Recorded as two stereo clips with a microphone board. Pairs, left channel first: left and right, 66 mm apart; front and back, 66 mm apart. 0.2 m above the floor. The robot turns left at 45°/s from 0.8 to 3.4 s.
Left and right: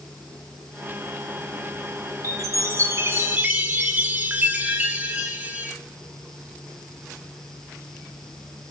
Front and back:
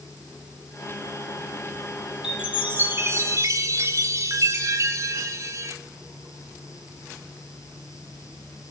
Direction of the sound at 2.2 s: 105° right.